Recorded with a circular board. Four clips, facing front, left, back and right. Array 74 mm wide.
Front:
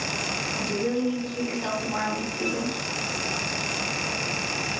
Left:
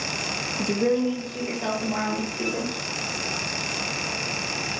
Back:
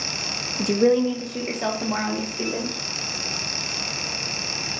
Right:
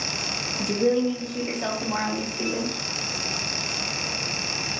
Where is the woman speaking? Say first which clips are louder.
Right 1 dB, back 8 dB; 155° left, 0.5 m; by 2.7 s 165° right, 1.4 m.